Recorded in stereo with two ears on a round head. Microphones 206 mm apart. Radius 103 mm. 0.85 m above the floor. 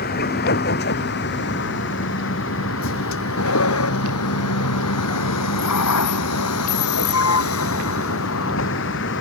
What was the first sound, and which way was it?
A vehicle, 45° left (ahead or behind).